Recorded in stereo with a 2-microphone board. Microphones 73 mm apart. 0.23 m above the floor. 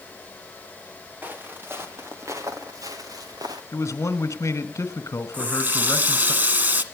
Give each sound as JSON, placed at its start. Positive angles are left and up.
{"t": 1.2, "sound": "footsteps", "side_deg": -25, "distance_m": 3.0}
{"t": 3.7, "sound": "a man speaking", "side_deg": 45, "distance_m": 1.7}
{"t": 5.3, "sound": "a running tap", "side_deg": -25, "distance_m": 1.5}